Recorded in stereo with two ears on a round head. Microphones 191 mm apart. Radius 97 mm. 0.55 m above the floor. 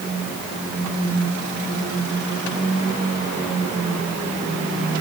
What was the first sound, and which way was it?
Only background noise.